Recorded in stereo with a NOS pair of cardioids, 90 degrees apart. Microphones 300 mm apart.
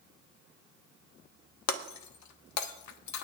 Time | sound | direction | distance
1.7 | breaking glass | 70° left | 1.1 m